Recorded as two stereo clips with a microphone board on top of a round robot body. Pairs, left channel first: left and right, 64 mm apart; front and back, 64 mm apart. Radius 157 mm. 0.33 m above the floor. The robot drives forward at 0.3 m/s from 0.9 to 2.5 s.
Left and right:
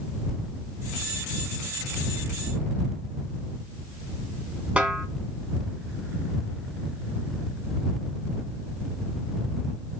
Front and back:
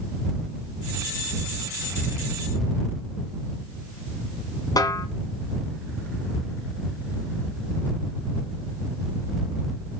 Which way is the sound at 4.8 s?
20° right.